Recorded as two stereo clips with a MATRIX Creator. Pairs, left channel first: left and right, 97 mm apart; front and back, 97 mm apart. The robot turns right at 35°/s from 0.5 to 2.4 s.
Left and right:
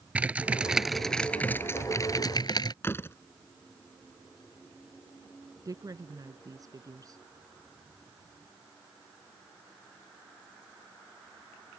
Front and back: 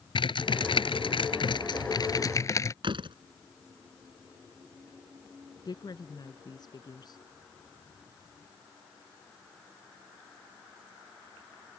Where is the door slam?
155° left.